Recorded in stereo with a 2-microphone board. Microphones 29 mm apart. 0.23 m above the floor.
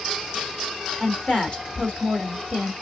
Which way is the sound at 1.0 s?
40° left (ahead or behind).